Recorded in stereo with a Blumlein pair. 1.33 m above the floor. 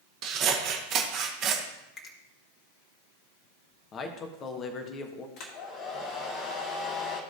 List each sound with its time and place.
0.2 s scissors: 35° right, 1.3 m
2.0 s a finger snap: 25° left, 1.8 m
3.9 s a man speaking: 25° left, 1.3 m
5.4 s a hair dryer: 40° left, 2.5 m